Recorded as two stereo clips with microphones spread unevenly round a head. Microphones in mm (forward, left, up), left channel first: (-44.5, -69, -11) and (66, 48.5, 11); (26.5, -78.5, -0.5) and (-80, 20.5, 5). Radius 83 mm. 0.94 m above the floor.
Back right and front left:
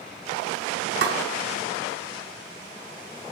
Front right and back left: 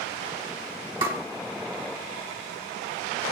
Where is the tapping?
70° left, 1.9 m.